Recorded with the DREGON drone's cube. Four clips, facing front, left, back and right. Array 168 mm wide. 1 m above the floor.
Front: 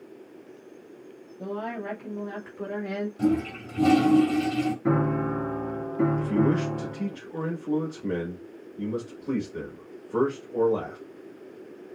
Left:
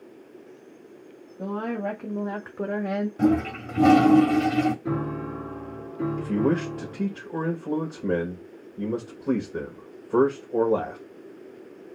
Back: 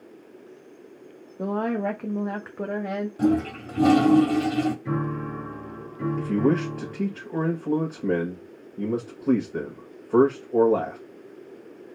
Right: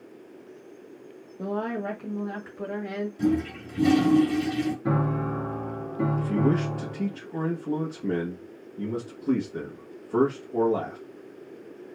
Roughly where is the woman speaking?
Behind.